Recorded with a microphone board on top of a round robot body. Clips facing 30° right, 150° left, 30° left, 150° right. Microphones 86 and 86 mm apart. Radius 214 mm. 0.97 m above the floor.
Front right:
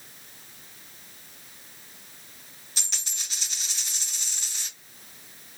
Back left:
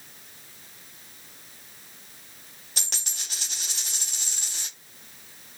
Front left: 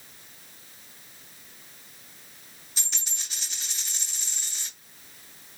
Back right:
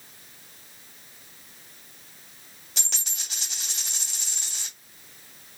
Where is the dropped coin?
175° right, 1.4 m.